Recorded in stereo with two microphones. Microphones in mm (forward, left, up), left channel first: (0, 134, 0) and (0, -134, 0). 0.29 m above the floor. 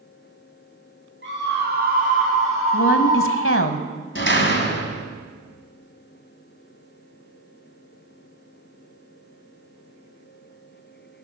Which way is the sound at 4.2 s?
45° left (ahead or behind).